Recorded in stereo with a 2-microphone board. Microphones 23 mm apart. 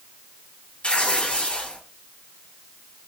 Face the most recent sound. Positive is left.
turn(degrees=70)  # may be behind; listen again after turning